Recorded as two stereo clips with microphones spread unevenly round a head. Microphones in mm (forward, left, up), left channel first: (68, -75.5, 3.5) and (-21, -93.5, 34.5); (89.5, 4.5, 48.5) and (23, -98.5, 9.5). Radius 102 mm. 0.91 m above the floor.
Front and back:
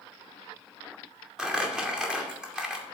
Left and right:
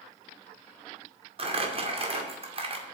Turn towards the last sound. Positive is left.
turn(degrees=-85)